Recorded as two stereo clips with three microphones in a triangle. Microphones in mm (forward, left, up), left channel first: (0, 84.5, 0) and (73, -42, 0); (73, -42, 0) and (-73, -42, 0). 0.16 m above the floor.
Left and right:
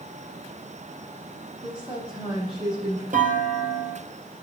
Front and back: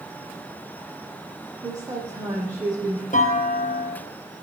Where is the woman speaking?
110° right, 7.5 m.